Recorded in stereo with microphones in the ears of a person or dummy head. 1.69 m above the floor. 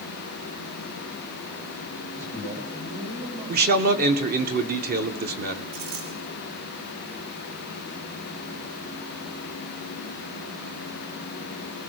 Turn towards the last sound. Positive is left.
turn(degrees=-55)  # may be behind; listen again after turning